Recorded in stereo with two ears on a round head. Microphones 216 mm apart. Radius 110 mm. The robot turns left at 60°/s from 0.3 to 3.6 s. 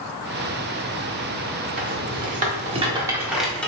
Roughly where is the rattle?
Right.